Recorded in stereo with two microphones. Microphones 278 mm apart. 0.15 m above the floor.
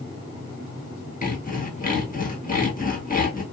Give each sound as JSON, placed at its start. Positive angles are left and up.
{"t": 1.2, "sound": "sawing", "side_deg": 30, "distance_m": 1.2}